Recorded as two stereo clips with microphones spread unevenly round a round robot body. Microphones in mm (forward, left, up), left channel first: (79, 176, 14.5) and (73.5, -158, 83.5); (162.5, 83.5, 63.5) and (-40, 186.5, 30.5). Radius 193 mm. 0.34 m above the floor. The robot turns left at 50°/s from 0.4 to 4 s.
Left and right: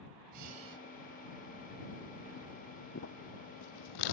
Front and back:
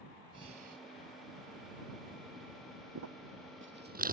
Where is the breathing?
135° right; by 0.8 s 160° right.